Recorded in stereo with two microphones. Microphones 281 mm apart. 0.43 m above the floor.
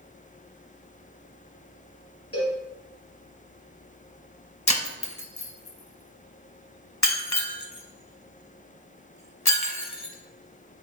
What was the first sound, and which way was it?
A cowbell, 55° left (ahead or behind).